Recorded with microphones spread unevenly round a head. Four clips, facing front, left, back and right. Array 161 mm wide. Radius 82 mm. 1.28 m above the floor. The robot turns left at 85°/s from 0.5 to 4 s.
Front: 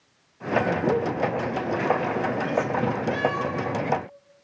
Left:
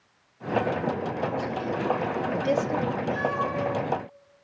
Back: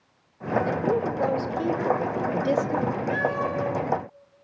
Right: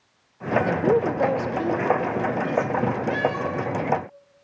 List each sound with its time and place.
0.7 s a woman speaking: 50° right, 1.0 m; by 2.9 s 120° left, 1.0 m
3.1 s a cat meowing: 95° right, 7 m; by 3.7 s 145° right, 7 m